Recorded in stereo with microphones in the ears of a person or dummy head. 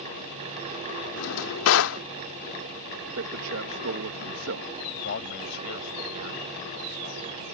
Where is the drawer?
75° left (ahead or behind).